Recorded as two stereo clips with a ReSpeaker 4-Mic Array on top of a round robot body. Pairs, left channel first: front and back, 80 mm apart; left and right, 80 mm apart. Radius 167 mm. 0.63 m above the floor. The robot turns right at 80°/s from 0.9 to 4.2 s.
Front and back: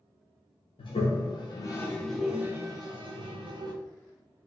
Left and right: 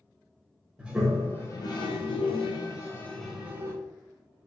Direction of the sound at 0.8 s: 10° right.